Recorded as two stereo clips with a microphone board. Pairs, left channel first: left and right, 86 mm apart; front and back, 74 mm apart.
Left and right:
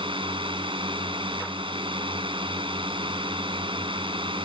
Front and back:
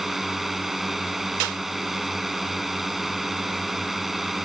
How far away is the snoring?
No snoring in this recording.